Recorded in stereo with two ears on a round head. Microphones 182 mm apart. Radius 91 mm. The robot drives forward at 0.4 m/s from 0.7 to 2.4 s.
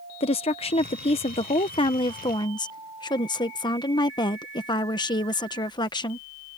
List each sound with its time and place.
0.2 s a woman speaking: 30° left (ahead or behind); by 6.2 s 20° left (ahead or behind)